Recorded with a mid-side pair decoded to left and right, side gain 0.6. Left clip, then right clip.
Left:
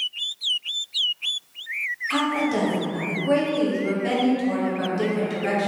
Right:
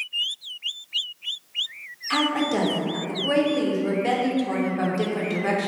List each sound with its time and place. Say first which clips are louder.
2.1 s a woman speaking: right 2 dB; 20° right, 0.7 m